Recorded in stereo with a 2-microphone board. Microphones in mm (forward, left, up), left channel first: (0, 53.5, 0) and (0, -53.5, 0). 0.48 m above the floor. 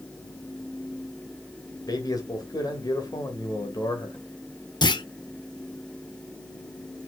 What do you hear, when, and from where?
1.9 s a man speaking: 35° left (ahead or behind), 2.5 m
4.8 s a clunk: 45° left (ahead or behind), 0.6 m